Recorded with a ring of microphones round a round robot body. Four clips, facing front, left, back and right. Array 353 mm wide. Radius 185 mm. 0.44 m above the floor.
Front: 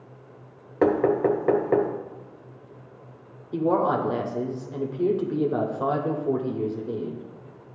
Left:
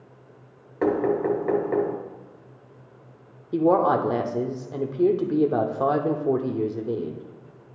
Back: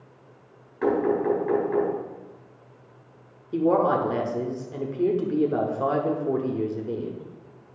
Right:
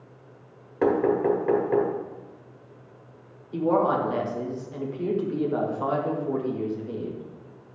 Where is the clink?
I don't hear a clink.